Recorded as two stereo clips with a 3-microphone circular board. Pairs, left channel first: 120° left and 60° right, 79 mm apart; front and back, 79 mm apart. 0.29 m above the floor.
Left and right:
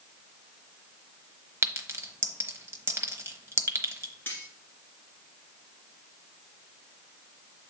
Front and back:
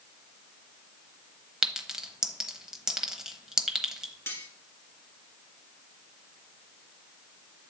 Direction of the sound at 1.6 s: 100° right.